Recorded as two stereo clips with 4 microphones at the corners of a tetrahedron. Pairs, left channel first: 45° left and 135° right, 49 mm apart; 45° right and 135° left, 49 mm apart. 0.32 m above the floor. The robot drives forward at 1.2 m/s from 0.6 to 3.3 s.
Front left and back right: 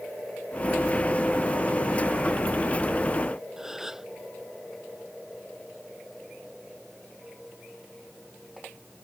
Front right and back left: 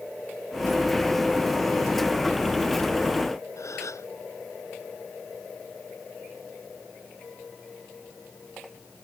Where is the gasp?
55° right.